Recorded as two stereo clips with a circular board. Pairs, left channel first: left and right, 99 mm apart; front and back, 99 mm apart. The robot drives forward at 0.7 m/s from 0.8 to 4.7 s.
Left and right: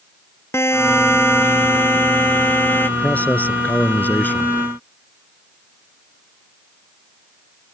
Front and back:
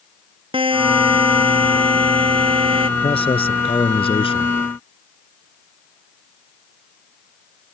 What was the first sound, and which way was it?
A buzzer, 155° left.